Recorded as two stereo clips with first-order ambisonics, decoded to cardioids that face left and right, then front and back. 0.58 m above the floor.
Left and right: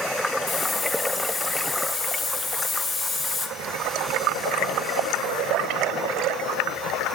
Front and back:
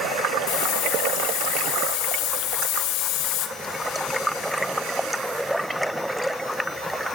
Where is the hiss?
Straight ahead, 2.5 m.